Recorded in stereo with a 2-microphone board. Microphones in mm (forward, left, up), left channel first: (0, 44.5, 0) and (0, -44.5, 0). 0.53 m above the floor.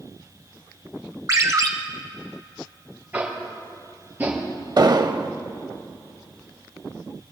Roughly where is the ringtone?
Right.